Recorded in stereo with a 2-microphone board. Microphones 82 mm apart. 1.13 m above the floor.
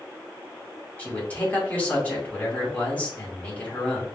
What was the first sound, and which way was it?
A man speaking, 20° left (ahead or behind).